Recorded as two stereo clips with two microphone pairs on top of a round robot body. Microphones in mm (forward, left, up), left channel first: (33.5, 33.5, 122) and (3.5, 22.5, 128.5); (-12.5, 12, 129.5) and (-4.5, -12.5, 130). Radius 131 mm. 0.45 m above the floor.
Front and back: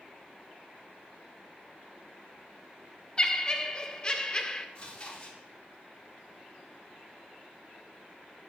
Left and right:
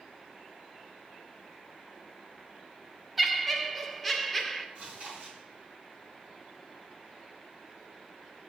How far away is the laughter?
About 1.2 m.